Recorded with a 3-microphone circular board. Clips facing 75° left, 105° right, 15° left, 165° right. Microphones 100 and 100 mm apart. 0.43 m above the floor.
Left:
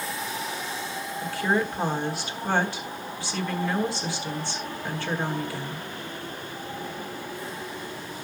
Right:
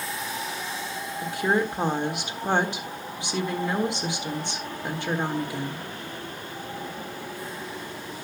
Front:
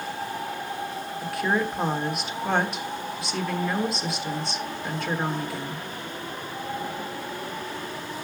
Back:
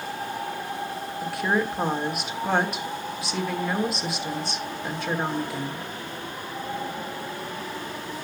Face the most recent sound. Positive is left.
turn(degrees=-80)